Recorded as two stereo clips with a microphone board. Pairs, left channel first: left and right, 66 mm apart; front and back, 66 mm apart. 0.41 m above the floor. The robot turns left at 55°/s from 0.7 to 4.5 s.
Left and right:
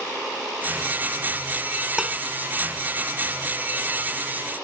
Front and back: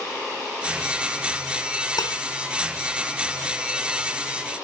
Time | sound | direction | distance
2.0 | dishes clattering | 10° right | ?